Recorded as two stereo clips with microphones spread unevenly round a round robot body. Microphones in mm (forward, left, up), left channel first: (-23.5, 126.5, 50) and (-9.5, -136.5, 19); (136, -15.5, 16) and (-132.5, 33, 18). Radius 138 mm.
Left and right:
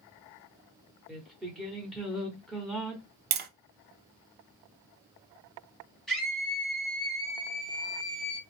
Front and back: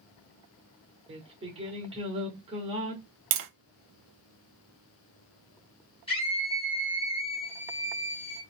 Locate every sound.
1.1 s singing: 160° right, 1.1 m
3.3 s tapping: 145° right, 0.6 m
6.1 s a scream: 15° right, 1.4 m